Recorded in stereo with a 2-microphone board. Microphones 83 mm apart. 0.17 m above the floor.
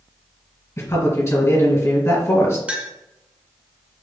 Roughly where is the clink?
Centre.